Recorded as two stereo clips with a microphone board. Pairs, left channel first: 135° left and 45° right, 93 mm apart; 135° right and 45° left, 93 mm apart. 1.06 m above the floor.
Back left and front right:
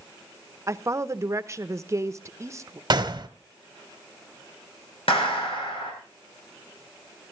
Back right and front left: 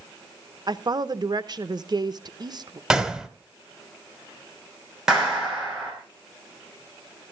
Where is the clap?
130° left, 5 m.